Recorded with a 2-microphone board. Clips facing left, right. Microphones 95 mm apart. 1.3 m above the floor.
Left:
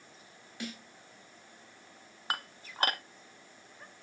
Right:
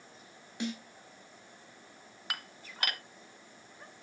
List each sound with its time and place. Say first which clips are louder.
0.6 s a snare drum: right 6 dB; 20° right (ahead or behind), 2.0 m
2.3 s dishes clattering: left 6 dB; 35° left (ahead or behind), 0.6 m